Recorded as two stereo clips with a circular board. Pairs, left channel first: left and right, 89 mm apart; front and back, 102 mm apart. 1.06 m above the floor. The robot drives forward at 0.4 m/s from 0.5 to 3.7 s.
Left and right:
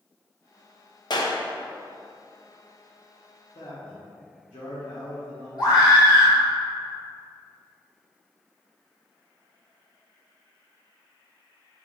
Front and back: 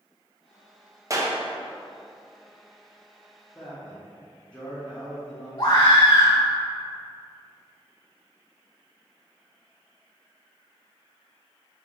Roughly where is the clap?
Behind left.